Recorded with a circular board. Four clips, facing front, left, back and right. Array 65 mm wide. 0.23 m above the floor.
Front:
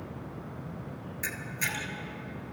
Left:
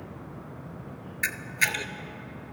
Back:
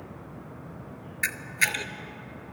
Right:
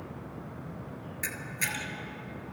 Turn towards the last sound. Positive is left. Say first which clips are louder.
# left 8 dB, back 7 dB
turn(degrees=140)